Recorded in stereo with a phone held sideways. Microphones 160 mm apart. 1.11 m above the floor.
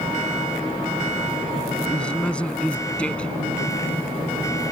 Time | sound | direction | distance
1.9 | a man speaking | 5° left (ahead or behind) | ?